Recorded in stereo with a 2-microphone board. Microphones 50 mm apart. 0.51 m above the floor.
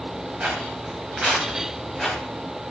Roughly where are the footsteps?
Right.